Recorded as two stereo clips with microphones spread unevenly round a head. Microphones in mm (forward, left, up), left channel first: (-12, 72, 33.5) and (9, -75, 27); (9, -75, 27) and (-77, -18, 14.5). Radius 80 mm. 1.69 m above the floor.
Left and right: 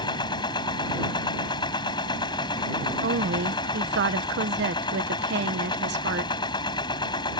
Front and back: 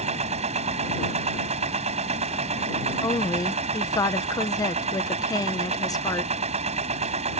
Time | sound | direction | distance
0.0 | a machine running | 160° left | ?
3.0 | a woman speaking | 90° right | ?